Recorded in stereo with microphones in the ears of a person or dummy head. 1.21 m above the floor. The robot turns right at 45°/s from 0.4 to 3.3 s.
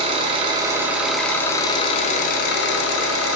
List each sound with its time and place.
0.0 s an engine running: 25° right, 0.8 m; by 3.4 s 105° left, 0.8 m